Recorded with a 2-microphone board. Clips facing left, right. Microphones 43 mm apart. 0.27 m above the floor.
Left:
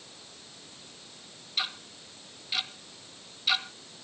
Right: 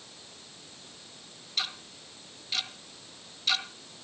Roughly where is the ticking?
Centre.